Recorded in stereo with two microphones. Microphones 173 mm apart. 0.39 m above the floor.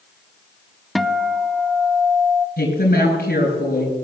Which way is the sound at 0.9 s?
Centre (ahead or behind).